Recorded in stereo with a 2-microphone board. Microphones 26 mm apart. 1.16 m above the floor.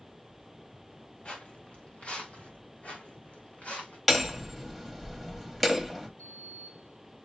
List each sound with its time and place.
1.2 s footsteps: 50° left (ahead or behind), 1.7 m; by 4.0 s 60° left (ahead or behind), 3.5 m
4.1 s hammering: centre (ahead or behind), 1.2 m
6.2 s a sliding door: 85° left, 4.5 m